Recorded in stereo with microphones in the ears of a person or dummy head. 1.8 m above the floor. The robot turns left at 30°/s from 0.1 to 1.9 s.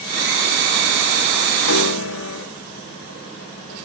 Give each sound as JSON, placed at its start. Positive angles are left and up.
{"t": 1.6, "sound": "a piano", "side_deg": 75, "distance_m": 1.4}